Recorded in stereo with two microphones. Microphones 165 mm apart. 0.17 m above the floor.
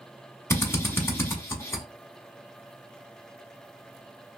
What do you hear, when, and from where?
0.5 s a drill: 15° left (ahead or behind), 0.8 m